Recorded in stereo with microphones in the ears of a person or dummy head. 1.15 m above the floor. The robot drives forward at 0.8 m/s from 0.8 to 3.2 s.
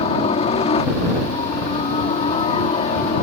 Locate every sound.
0.0 s a helicopter: 35° left (ahead or behind)